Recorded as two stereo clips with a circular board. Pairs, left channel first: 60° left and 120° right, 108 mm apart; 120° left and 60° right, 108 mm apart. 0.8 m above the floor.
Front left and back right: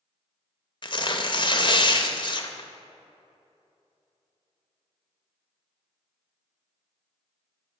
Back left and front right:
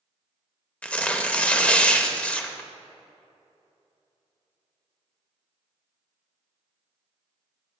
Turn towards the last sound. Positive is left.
turn(degrees=45)